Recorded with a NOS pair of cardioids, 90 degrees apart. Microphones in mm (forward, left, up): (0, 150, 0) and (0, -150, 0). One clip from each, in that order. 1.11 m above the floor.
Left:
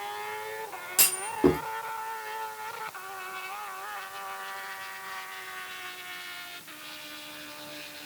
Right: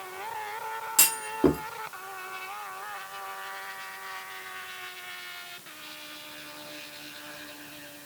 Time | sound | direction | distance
1.0 | a clunk | 10° right | 1.6 m